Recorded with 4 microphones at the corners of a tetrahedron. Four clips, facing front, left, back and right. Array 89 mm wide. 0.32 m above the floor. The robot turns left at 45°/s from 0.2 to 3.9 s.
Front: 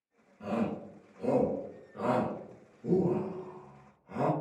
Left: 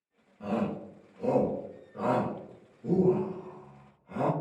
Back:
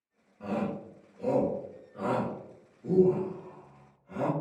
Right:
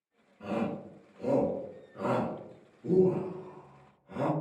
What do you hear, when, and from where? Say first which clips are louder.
0.4 s a shout: left 2 dB, even; 150° left, 0.8 m; by 4.3 s 5° right, 0.8 m